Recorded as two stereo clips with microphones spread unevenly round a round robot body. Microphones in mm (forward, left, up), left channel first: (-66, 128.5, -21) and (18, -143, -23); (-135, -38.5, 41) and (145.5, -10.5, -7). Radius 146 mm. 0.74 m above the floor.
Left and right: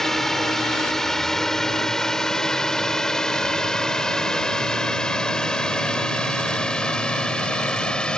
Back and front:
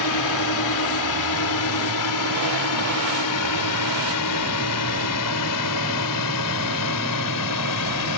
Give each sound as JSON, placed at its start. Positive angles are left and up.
{"t": 0.0, "sound": "a drone", "azimuth_deg": -165}